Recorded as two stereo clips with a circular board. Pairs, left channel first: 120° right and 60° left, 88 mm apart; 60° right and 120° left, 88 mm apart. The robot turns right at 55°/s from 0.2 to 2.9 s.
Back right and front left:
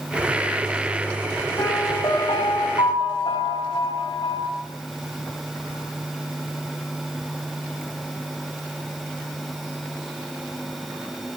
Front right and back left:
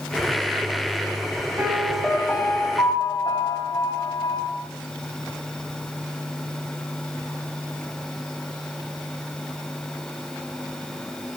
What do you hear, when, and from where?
1.6 s a piano: 175° right, 7 m; by 4.5 s 100° right, 7 m